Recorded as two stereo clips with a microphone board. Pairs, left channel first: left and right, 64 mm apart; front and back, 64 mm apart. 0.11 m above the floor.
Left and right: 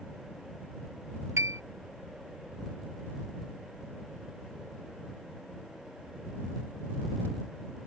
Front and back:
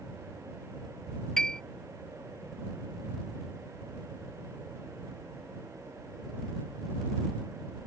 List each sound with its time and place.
1.4 s a piano: 80° right